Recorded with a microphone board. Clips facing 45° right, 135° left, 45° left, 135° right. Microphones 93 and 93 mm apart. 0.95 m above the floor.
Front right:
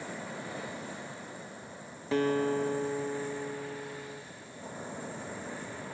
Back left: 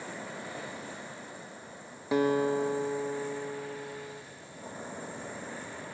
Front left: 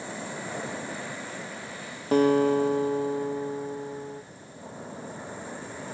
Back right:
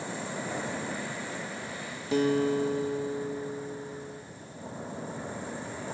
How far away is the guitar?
About 0.6 m.